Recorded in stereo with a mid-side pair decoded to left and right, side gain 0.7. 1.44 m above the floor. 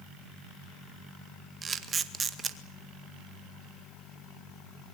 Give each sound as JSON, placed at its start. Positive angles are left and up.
{"t": 1.6, "sound": "a camera shutter", "azimuth_deg": -25, "distance_m": 2.0}